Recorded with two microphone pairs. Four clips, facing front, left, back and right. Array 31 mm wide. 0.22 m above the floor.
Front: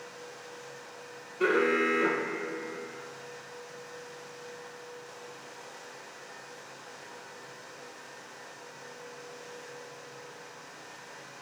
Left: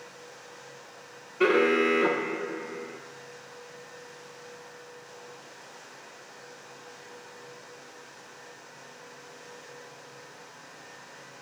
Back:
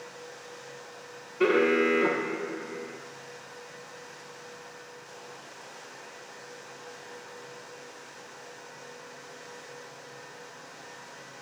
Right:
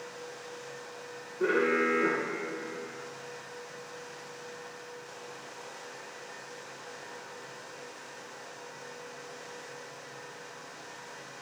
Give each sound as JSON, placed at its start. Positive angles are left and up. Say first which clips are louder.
{"t": 1.4, "sound": "an alarm", "louder": "left 4 dB, back 3 dB", "azimuth_deg": 110, "distance_m": 4.5}